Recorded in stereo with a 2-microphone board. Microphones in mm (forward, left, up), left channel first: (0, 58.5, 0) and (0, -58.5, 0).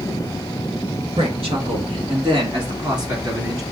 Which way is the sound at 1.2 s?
60° right (ahead or behind).